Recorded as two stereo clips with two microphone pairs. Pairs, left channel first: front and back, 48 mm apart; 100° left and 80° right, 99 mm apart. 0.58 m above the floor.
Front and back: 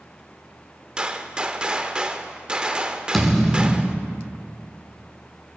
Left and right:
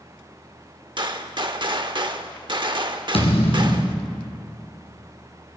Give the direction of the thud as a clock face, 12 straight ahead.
9 o'clock.